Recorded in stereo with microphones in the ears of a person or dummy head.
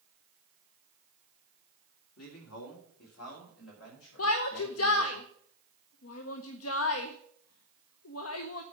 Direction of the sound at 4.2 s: 70° left (ahead or behind).